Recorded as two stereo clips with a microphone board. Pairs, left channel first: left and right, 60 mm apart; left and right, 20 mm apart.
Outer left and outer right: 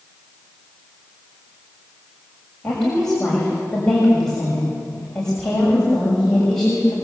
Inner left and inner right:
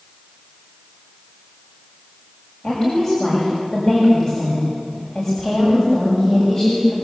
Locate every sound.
2.6 s a woman speaking: 10° left (ahead or behind), 6.5 m